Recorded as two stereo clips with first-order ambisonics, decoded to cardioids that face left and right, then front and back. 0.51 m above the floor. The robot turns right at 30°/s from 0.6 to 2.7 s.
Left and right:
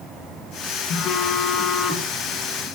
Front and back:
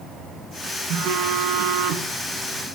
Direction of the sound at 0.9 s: 140° left.